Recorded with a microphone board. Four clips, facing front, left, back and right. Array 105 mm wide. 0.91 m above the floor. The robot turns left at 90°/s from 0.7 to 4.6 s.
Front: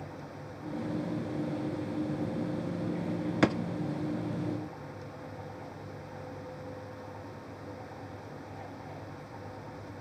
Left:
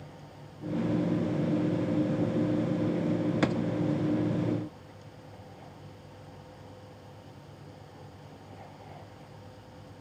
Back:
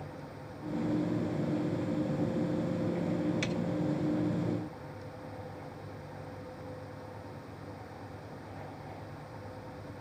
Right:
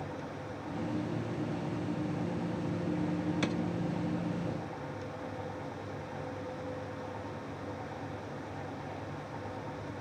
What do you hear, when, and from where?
3.4 s a drawer: 20° left; by 3.6 s 5° left